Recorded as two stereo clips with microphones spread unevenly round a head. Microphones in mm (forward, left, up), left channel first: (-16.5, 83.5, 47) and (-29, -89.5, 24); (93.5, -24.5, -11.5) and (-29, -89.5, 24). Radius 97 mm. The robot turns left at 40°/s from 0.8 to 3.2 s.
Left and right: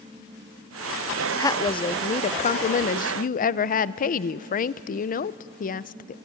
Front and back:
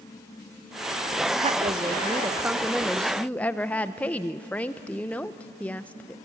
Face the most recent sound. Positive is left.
turn(degrees=85)